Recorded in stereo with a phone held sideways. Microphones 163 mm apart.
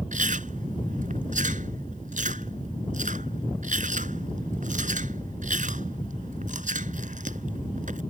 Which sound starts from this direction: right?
Chewing, at 0.1 s.